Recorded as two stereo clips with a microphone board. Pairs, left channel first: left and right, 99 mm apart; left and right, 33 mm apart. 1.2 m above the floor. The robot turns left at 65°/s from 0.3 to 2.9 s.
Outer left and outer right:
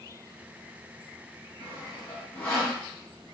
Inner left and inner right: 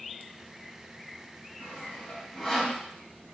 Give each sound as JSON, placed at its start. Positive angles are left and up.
{"t": 1.6, "sound": "sawing", "side_deg": 70, "distance_m": 1.5}